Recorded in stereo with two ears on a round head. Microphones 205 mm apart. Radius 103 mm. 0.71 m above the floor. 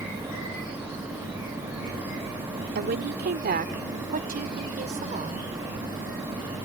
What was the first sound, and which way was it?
A woman speaking, 45° right (ahead or behind).